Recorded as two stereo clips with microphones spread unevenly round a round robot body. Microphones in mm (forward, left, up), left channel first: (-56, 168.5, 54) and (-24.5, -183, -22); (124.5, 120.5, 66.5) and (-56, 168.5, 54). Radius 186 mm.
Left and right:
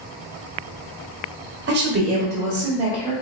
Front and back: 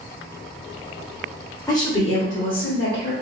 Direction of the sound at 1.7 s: 90° right.